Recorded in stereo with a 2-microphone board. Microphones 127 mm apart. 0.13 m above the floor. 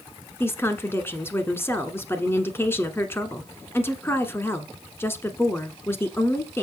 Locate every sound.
0.4 s a woman speaking: 20° left (ahead or behind), 1.3 m